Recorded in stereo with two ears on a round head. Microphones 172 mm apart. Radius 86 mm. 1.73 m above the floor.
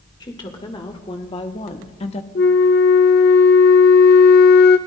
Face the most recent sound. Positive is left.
turn(degrees=50)  # may be behind; listen again after turning